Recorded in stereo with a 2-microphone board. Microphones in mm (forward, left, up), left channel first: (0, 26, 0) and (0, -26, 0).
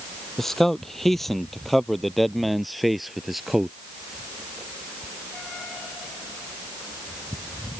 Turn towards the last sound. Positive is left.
turn(degrees=-5)  # may be behind; listen again after turning